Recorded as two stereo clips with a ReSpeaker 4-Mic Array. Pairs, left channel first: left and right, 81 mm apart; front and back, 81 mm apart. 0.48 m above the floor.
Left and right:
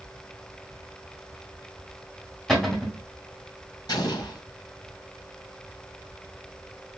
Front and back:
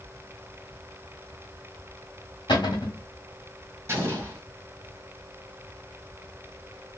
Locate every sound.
2.5 s a cupboard door: straight ahead, 1.4 m
3.9 s an explosion: 120° left, 1.5 m